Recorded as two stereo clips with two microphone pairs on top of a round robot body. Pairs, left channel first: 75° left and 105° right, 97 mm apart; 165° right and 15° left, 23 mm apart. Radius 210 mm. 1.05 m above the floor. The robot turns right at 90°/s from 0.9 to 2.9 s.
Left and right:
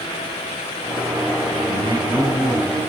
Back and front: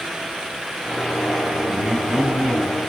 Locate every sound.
1.7 s a man speaking: 75° right, 8.5 m; by 2.8 s 30° left, 8.5 m